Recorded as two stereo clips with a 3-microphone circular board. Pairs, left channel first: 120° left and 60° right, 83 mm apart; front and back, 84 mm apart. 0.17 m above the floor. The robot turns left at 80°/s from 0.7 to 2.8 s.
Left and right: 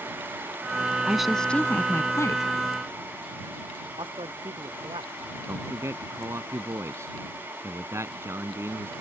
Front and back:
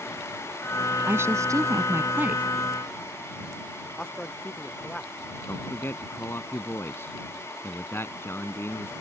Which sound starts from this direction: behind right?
A woman speaking, at 1.1 s.